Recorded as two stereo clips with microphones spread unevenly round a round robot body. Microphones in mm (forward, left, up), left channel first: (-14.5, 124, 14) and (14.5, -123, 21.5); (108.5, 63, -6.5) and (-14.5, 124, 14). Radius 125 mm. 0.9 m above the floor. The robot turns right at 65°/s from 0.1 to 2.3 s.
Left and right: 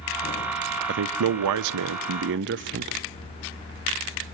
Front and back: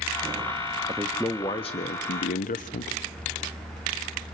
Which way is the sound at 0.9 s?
130° right.